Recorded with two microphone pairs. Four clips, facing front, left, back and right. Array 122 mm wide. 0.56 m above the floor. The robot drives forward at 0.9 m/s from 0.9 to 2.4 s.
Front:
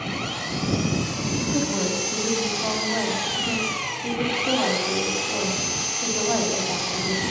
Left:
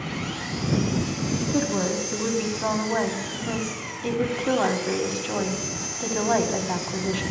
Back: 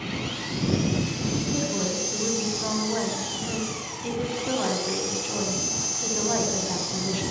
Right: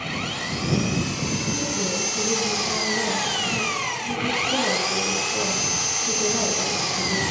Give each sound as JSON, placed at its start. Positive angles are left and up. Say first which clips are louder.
{"t": 0.0, "sound": "an engine running", "louder": "right 1 dB, front 2 dB", "azimuth_deg": -25, "distance_m": 2.0}
{"t": 1.4, "sound": "a woman speaking", "louder": "left 3 dB, front 6 dB", "azimuth_deg": 60, "distance_m": 4.5}